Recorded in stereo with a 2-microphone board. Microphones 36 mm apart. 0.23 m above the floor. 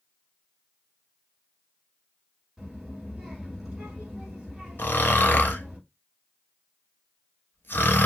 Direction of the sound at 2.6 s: 10° right (ahead or behind).